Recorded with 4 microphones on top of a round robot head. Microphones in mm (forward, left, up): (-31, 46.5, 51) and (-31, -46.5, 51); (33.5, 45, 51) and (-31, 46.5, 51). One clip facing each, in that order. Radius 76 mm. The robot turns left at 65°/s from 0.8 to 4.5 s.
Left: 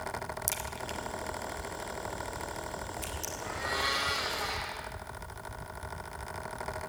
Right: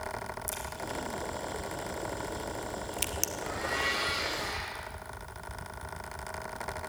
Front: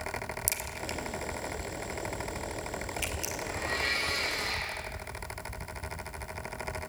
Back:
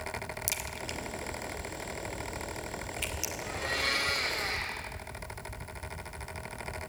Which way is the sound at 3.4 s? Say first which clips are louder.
Even, even; 170° right.